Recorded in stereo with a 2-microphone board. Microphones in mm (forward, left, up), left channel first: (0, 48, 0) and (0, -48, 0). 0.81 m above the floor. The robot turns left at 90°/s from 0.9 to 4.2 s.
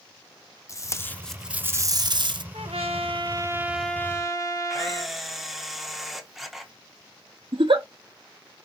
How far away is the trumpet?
About 1.0 m.